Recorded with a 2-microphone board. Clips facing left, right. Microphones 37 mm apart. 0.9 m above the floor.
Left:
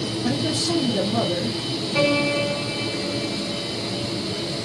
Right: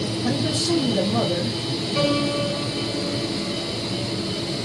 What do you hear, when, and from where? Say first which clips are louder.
0.2 s a man speaking: right 1 dB; 30° left (ahead or behind), 1.7 m
1.9 s a piano: left 2 dB; 80° left, 1.4 m